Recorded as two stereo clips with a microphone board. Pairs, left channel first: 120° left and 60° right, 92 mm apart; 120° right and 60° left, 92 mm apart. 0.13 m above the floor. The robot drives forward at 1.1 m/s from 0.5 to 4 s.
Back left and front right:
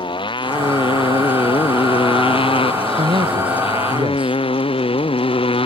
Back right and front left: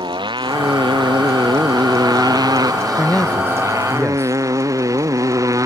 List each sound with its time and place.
0.0 s a motorcycle: 95° left; by 5.7 s 115° left
3.0 s a man speaking: 45° right; by 4.4 s 50° right